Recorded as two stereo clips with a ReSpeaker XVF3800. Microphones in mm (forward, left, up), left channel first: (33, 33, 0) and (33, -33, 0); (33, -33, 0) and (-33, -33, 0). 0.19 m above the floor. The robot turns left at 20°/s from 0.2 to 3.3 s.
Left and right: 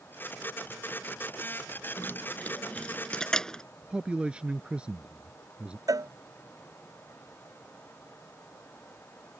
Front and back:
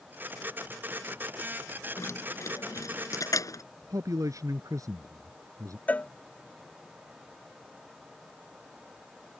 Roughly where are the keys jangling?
Ahead left.